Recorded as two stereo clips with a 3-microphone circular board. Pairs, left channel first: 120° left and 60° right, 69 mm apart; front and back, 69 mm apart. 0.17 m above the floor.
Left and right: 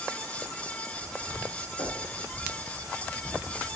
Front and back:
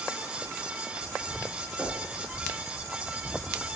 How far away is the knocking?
About 3 m.